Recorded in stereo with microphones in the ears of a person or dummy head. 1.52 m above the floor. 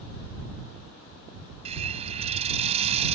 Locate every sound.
1.6 s a hiss: 35° right (ahead or behind)